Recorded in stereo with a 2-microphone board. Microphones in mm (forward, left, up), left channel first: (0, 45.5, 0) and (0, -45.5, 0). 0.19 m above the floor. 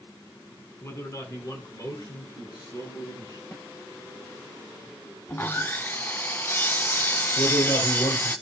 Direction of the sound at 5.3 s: 25° left (ahead or behind).